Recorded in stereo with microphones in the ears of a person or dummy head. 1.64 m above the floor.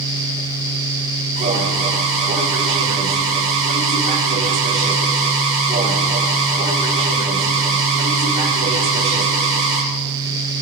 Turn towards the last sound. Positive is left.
turn(degrees=-35)  # may be behind; listen again after turning